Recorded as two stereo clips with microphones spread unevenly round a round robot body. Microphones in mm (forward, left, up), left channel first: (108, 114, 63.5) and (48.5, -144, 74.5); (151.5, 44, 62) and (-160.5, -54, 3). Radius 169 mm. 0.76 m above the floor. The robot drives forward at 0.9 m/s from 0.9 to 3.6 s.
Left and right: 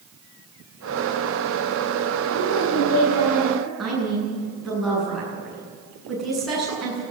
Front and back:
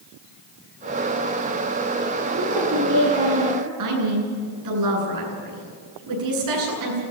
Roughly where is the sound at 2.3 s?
Behind left.